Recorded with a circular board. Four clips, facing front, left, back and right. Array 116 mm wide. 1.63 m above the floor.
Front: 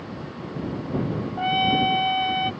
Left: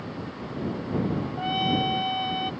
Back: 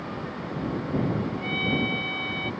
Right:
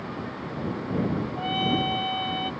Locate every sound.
1.4 s a trumpet: 5° left